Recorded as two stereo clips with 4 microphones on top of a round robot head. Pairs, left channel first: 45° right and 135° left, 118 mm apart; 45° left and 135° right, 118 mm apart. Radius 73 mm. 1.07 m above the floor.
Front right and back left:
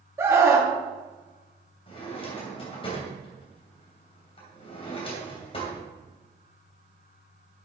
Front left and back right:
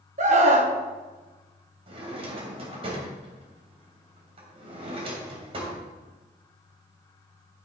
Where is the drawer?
90° right, 2.5 m.